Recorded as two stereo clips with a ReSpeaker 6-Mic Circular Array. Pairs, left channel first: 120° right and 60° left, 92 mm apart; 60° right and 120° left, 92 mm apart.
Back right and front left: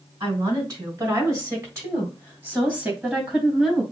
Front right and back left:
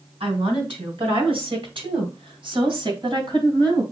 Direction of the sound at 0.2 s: 100° left.